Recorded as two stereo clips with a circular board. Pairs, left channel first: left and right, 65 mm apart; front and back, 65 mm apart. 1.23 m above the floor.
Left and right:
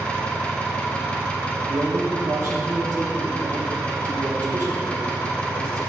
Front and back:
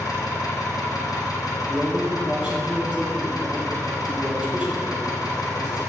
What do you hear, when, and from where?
0.0 s an engine running: 20° left, 0.9 m
1.7 s a man speaking: 110° right, 0.8 m